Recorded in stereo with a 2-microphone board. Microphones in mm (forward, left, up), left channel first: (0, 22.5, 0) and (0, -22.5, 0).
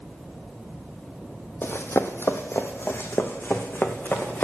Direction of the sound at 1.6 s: 60° left (ahead or behind).